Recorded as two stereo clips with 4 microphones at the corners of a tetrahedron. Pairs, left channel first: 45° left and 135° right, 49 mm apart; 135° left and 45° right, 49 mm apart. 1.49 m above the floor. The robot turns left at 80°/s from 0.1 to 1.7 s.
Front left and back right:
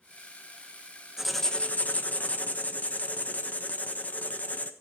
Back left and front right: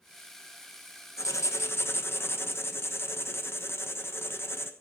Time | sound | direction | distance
1.2 | writing | 145° left | 1.2 m